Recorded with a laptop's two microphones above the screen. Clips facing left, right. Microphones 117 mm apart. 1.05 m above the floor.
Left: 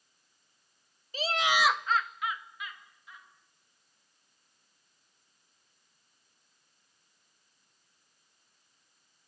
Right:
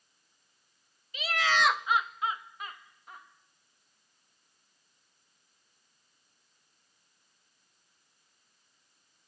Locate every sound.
1.1 s laughter: 35° left (ahead or behind), 0.9 m; by 3.3 s 50° right (ahead or behind), 2.0 m